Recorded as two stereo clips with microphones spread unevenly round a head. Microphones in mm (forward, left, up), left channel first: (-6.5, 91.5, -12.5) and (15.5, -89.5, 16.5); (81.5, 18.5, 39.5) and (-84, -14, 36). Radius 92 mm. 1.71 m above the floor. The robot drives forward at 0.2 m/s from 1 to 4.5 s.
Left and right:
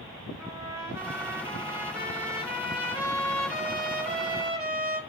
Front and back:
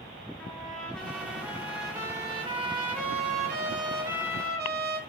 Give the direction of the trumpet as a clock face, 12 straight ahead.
2 o'clock.